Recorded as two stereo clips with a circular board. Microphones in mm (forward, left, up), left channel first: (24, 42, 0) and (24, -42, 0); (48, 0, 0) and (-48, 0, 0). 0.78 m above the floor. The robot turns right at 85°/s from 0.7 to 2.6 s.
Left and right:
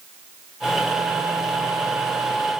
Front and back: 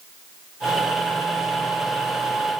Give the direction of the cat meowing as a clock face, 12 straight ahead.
No cat meowing in this recording.